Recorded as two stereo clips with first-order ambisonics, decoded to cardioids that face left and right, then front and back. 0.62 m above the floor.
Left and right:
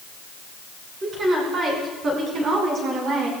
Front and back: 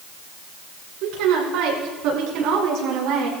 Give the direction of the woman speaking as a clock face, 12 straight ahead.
5 o'clock.